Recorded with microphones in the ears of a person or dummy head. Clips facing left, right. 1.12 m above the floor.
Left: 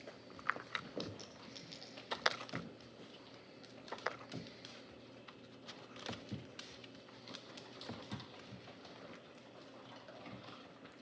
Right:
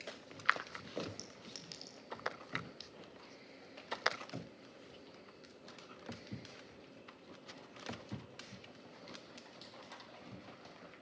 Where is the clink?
60° right (ahead or behind), 1.9 m.